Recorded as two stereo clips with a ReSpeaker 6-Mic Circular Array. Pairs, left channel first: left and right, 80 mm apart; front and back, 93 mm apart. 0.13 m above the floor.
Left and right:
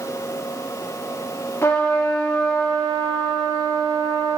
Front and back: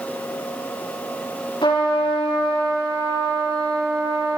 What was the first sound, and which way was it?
A trumpet, 30° left.